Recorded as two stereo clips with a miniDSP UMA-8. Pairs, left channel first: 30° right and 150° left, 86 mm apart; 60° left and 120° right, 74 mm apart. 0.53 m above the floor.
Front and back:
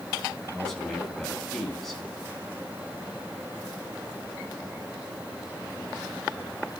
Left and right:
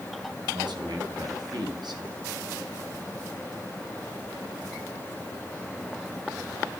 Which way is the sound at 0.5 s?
115° right.